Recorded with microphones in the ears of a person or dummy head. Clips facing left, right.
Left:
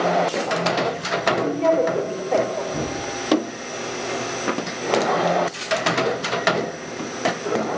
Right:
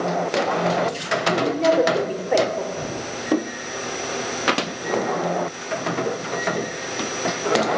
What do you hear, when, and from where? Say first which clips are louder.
1.3 s a woman speaking: even; 10° right (ahead or behind), 5 m
2.7 s a thud: left 2 dB; 75° left (ahead or behind), 9.5 m